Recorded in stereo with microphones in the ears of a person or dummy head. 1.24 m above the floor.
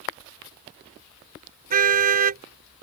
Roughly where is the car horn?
Right.